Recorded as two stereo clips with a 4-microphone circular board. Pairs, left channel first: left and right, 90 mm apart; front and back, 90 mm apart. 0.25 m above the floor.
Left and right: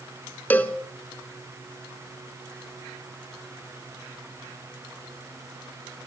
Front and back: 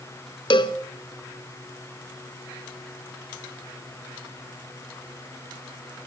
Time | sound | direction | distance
0.5 | a cowbell | 20° left | 1.0 m